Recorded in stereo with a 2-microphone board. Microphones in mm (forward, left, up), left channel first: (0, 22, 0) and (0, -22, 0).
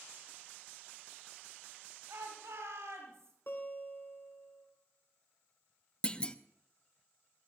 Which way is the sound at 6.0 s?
20° left (ahead or behind).